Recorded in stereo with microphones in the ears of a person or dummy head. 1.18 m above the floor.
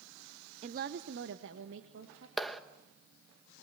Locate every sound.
0.6 s a woman speaking: 30° right (ahead or behind), 0.6 m; by 2.3 s 70° right (ahead or behind), 2.5 m
2.4 s a clap: centre (ahead or behind), 1.1 m